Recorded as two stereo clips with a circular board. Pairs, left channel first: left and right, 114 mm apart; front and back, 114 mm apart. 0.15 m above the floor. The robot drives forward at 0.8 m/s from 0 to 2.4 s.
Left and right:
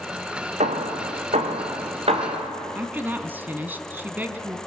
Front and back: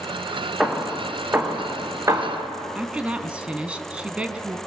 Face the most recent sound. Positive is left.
turn(degrees=-125)